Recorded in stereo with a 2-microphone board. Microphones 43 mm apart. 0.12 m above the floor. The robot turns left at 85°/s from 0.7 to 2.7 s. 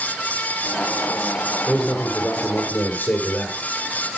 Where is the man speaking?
170° right, 2.0 m; by 3.6 s 100° left, 2.0 m.